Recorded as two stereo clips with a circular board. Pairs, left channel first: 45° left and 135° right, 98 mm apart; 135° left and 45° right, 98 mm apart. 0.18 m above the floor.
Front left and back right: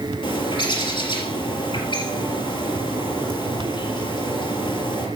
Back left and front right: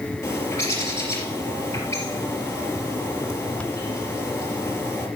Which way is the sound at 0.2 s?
75° left.